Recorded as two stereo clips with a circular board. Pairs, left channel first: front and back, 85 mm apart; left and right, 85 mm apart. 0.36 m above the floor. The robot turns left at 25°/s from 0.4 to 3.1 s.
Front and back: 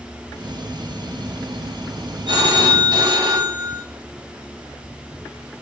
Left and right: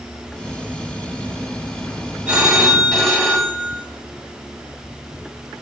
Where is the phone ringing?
165° right, 1.6 m; by 3.8 s 170° left, 1.6 m.